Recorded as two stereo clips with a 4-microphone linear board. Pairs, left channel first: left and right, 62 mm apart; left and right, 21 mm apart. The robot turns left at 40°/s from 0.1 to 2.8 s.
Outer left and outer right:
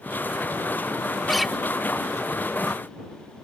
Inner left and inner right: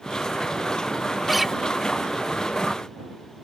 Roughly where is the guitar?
Centre.